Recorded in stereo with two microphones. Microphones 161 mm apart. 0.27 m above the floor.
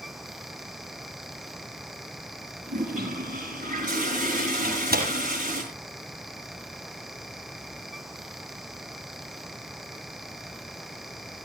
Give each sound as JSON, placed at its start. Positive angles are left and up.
{"t": 2.7, "sound": "a toilet flushing", "side_deg": -55, "distance_m": 7.5}
{"t": 4.6, "sound": "a door slam", "side_deg": -70, "distance_m": 6.0}